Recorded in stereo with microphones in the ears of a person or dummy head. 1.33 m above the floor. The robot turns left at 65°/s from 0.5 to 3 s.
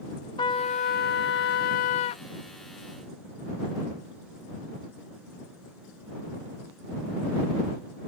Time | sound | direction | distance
0.4 | a trumpet | 150° left | ?